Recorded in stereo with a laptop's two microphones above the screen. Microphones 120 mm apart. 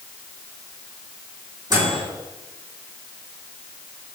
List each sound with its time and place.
1.7 s a microwave: 35° right (ahead or behind), 3 m